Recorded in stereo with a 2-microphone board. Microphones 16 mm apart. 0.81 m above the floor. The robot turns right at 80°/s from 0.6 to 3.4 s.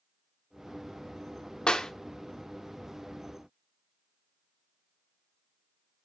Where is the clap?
70° left (ahead or behind), 1.2 m; by 1.9 s 50° left (ahead or behind), 1.2 m.